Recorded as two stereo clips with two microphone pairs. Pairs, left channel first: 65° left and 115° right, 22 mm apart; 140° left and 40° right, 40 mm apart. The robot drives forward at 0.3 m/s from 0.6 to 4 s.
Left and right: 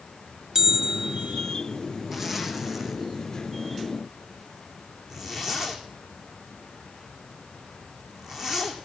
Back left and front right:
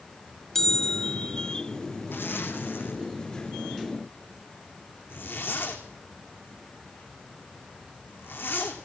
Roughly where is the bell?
Behind right.